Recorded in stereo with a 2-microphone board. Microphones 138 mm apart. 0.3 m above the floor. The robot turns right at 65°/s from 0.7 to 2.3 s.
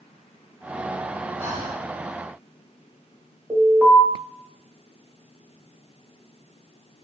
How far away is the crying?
No crying in this recording.